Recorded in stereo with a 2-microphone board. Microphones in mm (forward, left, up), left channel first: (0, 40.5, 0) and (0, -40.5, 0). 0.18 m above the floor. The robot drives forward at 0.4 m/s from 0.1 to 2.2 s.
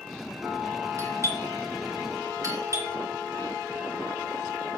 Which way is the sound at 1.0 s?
35° right (ahead or behind).